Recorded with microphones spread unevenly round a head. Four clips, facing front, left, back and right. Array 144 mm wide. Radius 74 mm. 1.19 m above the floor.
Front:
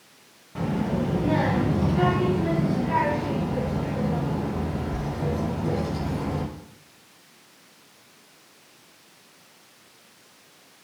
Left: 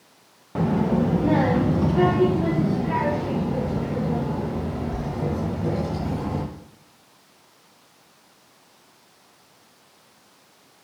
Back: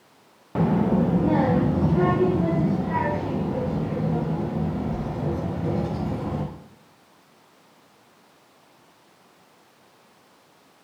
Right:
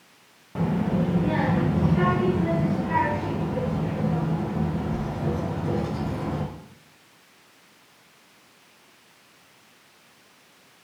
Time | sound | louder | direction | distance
0.6 | a child speaking | left 3 dB, back 5 dB | 155° left | 0.6 m